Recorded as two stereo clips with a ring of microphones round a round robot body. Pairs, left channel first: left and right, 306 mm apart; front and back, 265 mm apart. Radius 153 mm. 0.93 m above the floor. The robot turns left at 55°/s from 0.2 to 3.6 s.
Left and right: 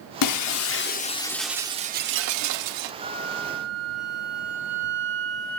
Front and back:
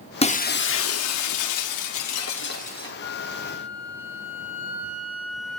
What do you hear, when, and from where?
0.2 s breaking glass: 70° left, 0.9 m; by 2.9 s 80° right, 0.9 m
3.0 s a flute: 15° right, 2 m; by 5.6 s 50° right, 2 m